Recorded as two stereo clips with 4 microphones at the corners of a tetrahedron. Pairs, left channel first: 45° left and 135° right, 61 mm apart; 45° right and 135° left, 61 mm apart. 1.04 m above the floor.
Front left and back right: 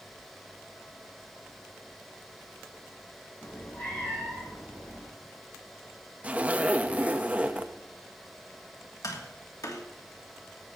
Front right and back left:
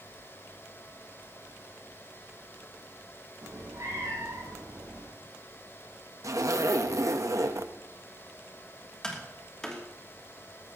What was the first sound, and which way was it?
A cat meowing, 110° left.